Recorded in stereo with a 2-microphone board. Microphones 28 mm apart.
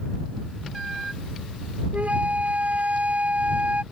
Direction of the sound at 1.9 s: 60° right (ahead or behind).